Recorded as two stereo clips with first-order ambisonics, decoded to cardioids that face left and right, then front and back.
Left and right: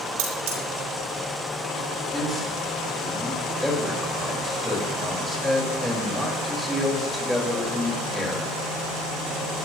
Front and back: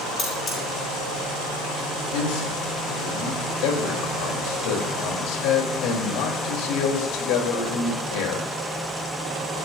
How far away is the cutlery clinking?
About 7 m.